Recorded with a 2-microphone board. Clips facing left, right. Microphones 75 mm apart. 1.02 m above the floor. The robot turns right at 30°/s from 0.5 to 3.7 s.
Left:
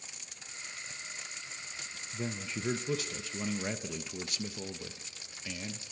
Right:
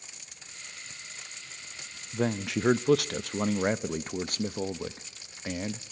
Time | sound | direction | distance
2.1 | a man speaking | 95° right | 0.7 m